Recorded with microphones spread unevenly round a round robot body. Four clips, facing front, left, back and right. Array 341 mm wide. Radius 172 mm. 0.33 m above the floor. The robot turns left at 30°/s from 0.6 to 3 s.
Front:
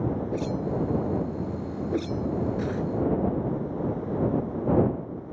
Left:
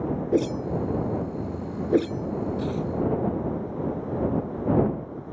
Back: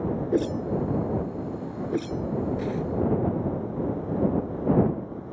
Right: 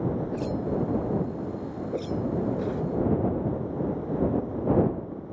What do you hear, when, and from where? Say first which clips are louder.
0.3 s a whoosh: left 4 dB, back 3 dB; 125° left; by 2.8 s 60° left